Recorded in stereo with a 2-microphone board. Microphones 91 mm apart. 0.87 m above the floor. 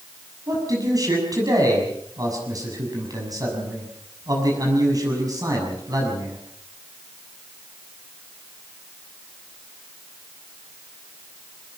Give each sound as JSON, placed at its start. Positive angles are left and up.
{"t": 0.5, "sound": "a man speaking", "side_deg": -45, "distance_m": 6.5}